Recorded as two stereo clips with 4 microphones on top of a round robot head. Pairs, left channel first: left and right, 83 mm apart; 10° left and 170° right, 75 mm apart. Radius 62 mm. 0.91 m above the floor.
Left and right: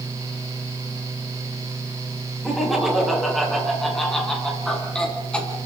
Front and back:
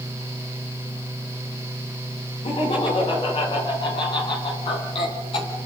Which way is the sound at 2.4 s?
5° right.